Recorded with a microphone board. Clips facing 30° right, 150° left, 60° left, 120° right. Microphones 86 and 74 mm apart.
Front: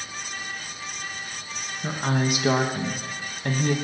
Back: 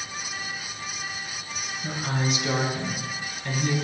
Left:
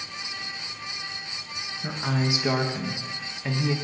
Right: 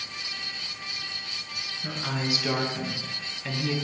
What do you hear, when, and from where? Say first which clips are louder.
1.8 s a woman speaking: front 4 dB, left 4 dB; straight ahead, 1.3 m